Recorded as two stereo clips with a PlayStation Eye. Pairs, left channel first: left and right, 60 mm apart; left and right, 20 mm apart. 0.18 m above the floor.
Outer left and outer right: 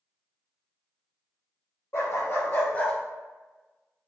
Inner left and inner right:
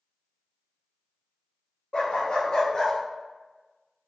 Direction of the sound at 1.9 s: 60° left (ahead or behind).